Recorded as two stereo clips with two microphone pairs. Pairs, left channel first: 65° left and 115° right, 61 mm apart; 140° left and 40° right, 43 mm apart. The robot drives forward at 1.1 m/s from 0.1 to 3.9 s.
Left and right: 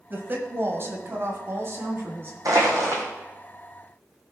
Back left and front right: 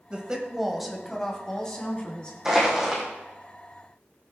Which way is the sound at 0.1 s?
90° right.